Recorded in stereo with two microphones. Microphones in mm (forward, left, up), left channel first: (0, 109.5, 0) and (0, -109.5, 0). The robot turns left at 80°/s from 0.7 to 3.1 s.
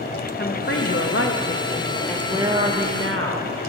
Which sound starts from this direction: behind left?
A woman speaking, at 0.4 s.